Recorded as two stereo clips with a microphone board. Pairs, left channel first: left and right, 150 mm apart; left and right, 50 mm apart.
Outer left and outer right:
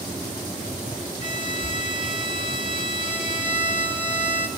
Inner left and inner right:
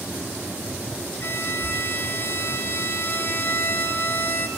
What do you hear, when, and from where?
1.2 s a violin: 55° left (ahead or behind), 1.0 m